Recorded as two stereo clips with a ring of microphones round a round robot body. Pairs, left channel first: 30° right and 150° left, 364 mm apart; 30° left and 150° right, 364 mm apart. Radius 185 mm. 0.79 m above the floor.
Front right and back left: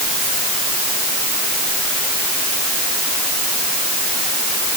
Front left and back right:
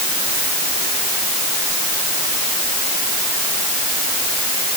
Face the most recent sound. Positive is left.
No sound to turn to.